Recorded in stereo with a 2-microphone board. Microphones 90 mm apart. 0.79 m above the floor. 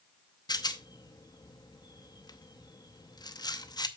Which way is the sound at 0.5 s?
50° left (ahead or behind).